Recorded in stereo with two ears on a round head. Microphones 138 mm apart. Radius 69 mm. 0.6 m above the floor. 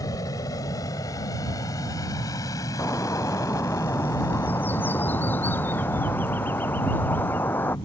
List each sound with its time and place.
0.0 s an aircraft: 25° left (ahead or behind)
2.8 s a bird: 15° left (ahead or behind)